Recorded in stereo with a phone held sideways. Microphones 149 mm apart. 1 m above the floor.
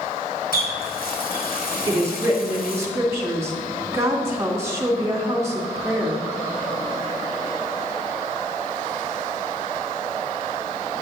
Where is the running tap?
70° left (ahead or behind), 2 m.